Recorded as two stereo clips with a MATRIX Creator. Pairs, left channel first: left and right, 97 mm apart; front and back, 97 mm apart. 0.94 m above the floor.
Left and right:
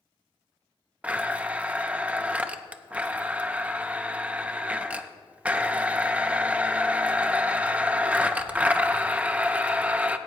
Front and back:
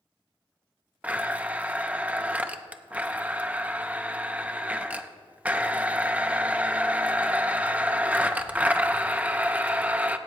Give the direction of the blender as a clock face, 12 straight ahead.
5 o'clock.